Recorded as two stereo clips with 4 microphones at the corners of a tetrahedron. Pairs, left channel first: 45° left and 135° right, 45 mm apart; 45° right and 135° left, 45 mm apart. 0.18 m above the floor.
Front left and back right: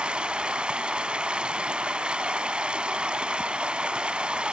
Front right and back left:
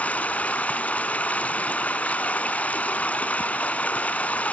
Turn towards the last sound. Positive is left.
turn(degrees=-80)